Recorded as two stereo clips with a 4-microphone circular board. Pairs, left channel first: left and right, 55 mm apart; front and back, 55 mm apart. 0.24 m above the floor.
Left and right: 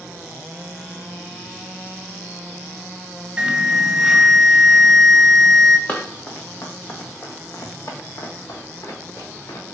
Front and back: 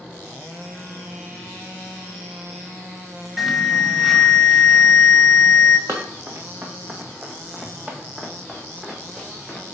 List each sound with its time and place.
3.4 s an alarm: 110° right, 0.6 m
5.9 s running footsteps: 145° left, 1.2 m; by 9.8 s 85° left, 2.5 m